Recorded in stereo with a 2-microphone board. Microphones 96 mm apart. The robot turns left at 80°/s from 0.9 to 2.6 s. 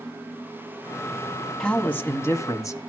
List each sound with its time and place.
1.6 s a man speaking: 170° left, 1.2 m; by 2.8 s 90° left, 1.2 m